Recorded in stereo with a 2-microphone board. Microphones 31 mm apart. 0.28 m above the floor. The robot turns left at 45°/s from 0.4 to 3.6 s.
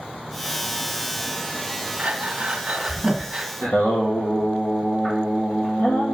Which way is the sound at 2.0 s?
45° right (ahead or behind).